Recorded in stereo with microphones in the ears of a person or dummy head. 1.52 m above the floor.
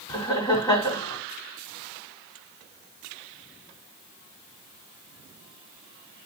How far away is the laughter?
About 3 m.